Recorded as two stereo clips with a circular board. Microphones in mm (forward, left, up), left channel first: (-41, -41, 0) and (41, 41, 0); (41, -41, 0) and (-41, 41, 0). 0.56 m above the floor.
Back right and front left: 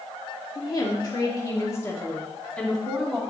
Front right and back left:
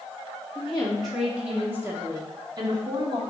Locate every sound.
0.6 s a woman speaking: 120° right, 1.4 m; by 3.2 s 135° left, 1.5 m